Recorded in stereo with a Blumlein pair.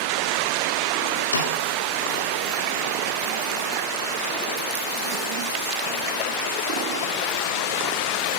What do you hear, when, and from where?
1.3 s a snare drum: 65° left, 1.8 m